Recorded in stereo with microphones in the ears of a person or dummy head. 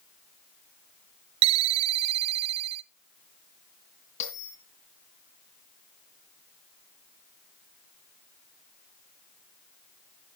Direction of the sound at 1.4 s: 35° right (ahead or behind).